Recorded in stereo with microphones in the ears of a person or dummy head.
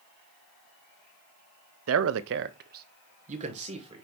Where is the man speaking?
80° right, 0.6 m; by 4.0 s 35° right (ahead or behind), 1.6 m.